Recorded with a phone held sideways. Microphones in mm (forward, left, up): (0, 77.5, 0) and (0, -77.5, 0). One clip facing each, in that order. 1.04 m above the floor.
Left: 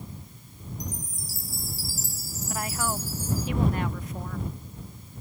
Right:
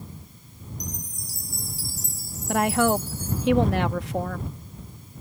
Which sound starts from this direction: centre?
A chime, at 0.8 s.